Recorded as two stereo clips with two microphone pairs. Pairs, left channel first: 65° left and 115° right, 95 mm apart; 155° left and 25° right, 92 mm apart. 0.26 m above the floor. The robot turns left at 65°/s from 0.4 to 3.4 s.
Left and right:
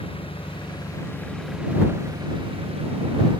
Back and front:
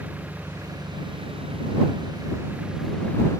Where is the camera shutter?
I don't hear a camera shutter.